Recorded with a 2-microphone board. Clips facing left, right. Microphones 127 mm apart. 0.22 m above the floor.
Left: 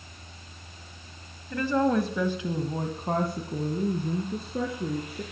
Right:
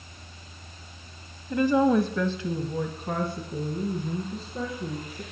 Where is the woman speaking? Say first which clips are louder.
Right 3 dB; 25° right (ahead or behind), 1.0 m; by 5.2 s 70° left (ahead or behind), 2.5 m.